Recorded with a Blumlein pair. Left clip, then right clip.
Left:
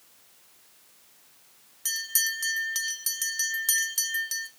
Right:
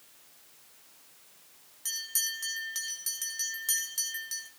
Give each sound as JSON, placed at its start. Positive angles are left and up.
{"t": 1.9, "sound": "a bell", "azimuth_deg": 20, "distance_m": 1.5}